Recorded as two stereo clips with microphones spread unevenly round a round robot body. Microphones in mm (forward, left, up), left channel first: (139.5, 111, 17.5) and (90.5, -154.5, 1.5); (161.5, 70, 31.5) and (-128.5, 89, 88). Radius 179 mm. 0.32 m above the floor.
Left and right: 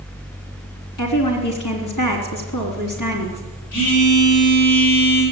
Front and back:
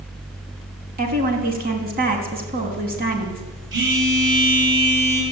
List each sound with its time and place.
1.0 s a woman speaking: 115° left, 3.5 m
3.7 s a phone buzzing: 125° left, 8.5 m